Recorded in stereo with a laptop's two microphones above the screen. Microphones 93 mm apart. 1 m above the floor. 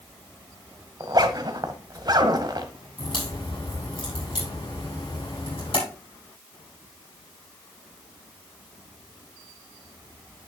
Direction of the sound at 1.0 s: 45° right (ahead or behind).